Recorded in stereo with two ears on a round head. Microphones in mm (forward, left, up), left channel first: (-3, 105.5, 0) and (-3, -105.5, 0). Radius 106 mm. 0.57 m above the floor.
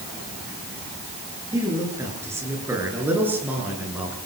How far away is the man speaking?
About 8.5 m.